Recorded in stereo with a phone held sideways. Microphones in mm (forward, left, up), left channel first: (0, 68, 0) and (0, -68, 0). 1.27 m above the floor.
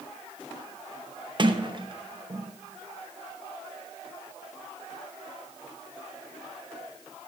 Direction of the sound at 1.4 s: 40° right (ahead or behind).